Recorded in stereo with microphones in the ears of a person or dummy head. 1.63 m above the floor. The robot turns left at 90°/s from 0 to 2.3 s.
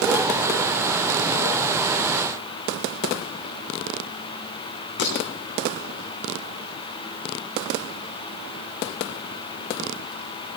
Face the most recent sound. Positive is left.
turn(degrees=60)  # may be behind; listen again after turning